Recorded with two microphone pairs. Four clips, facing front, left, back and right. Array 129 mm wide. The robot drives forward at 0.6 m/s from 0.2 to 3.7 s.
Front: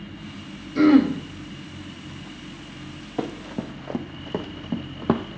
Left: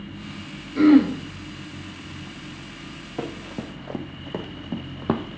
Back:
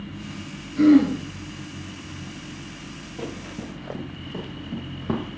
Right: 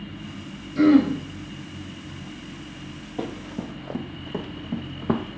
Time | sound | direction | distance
0.8 | throat clearing | 30° left | 1.9 m
3.2 | running footsteps | 30° left | 2.5 m